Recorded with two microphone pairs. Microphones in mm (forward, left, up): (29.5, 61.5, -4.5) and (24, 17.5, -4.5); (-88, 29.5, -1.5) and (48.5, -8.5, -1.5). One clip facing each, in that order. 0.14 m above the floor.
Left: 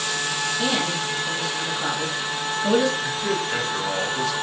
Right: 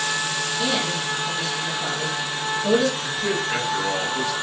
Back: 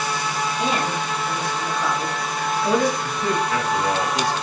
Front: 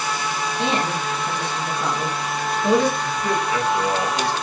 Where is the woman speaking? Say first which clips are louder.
Right 1 dB, front 2 dB; 25° left, 1.3 m.